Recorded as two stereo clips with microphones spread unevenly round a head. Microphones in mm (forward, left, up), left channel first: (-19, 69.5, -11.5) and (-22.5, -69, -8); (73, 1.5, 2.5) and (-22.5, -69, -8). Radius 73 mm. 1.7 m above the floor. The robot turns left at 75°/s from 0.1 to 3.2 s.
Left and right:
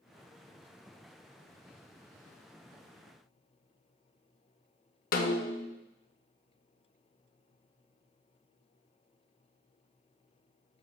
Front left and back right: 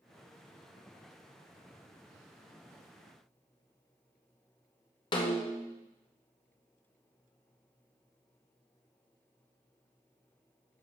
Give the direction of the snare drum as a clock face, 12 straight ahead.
9 o'clock.